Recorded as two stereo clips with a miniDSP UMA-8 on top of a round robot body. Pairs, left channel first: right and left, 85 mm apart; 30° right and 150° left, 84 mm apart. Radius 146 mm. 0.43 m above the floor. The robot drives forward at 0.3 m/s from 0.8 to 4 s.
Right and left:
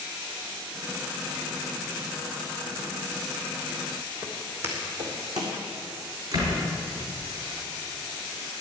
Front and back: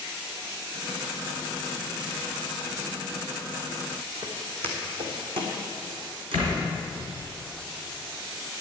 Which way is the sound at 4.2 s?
160° left.